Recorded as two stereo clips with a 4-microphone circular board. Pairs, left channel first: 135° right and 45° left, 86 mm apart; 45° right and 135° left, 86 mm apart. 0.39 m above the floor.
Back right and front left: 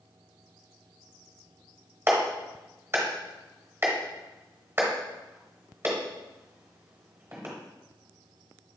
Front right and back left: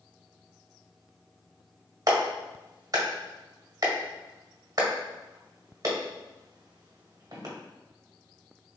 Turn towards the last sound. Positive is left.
turn(degrees=100)